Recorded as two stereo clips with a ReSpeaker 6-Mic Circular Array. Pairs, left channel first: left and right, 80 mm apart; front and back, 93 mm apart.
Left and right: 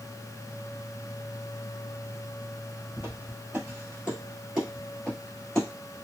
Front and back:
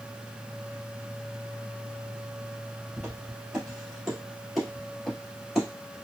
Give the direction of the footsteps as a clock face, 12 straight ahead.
4 o'clock.